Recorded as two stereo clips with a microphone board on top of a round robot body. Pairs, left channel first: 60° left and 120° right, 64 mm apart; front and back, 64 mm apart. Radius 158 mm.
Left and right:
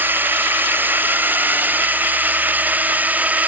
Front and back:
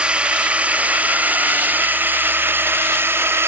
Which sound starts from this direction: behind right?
A drone, at 0.0 s.